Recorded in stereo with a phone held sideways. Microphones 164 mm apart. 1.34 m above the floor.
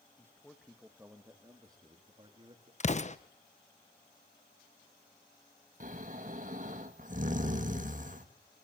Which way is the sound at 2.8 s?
45° left (ahead or behind).